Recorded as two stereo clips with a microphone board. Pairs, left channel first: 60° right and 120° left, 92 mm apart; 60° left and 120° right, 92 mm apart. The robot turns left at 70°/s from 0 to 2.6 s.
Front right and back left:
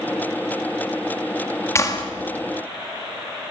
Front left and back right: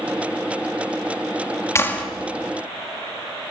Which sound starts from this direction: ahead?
A clap, at 1.8 s.